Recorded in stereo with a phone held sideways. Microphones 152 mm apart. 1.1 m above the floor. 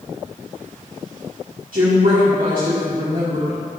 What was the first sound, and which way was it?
A woman speaking, 75° right (ahead or behind).